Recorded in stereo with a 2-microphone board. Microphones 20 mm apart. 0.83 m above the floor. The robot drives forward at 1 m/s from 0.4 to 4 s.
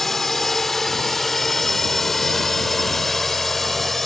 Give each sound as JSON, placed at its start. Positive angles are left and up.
{"t": 0.0, "sound": "a drone", "side_deg": 10}